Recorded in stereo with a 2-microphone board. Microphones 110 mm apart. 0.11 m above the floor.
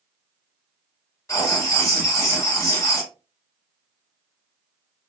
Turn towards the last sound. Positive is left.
turn(degrees=25)  # may be behind; listen again after turning